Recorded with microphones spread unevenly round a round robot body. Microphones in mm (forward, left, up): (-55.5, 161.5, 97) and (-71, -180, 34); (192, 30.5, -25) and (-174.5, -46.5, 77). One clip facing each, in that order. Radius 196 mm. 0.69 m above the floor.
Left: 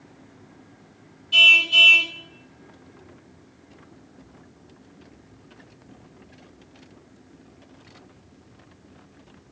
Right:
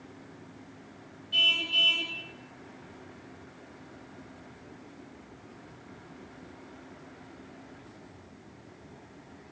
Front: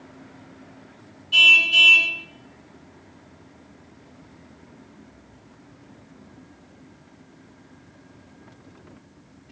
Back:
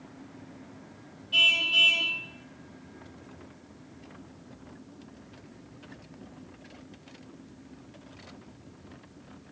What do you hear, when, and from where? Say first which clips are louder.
1.3 s a car horn: left 5 dB, front 5 dB; 70° left, 3.5 m